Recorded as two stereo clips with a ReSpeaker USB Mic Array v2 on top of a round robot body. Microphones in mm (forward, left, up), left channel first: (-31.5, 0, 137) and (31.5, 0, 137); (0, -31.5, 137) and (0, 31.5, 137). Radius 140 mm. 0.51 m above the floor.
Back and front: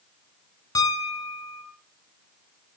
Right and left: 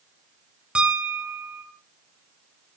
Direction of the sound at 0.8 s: 165° left.